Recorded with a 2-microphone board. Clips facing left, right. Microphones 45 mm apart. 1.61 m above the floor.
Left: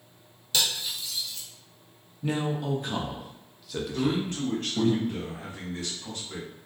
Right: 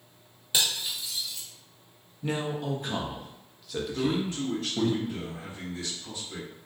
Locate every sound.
0.5 s cutlery clinking: 20° right (ahead or behind), 0.7 m
2.2 s a man speaking: centre (ahead or behind), 0.6 m
3.9 s a man speaking: 55° left (ahead or behind), 1.0 m